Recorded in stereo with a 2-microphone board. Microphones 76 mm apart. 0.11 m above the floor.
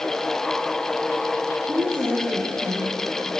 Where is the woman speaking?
60° right (ahead or behind), 7 m.